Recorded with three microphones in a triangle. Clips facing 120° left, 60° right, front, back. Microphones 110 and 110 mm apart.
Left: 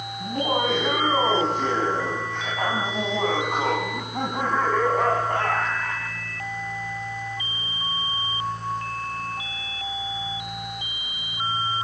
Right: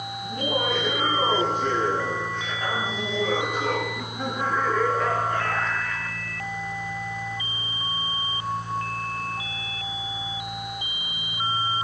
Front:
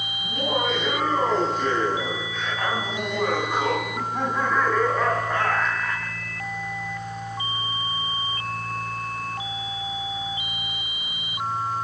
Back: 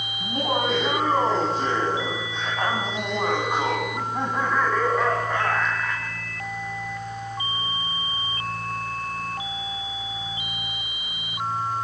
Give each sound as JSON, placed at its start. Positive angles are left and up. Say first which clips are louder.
{"t": 0.2, "sound": "laughter", "louder": "left 3 dB, back 1 dB", "azimuth_deg": 135, "distance_m": 6.0}